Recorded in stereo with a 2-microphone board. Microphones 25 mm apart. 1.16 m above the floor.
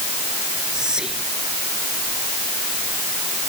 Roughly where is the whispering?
Right.